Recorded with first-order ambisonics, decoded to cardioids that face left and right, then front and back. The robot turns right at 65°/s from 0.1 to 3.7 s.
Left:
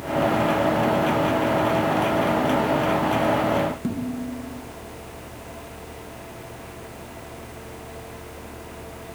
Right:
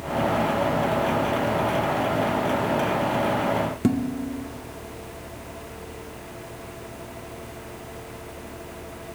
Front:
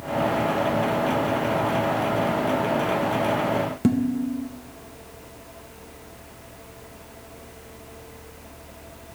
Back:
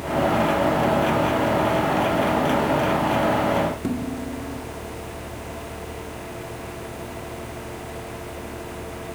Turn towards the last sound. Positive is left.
turn(degrees=-55)